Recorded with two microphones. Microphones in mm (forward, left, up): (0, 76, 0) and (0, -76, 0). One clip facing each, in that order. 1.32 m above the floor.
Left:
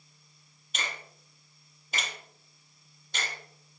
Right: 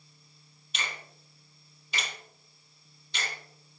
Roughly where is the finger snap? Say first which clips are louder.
Left 1 dB; left.